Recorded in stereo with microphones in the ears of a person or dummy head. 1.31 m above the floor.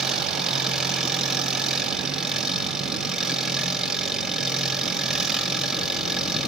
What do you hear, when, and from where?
0.0 s an engine running: centre (ahead or behind), 5.5 m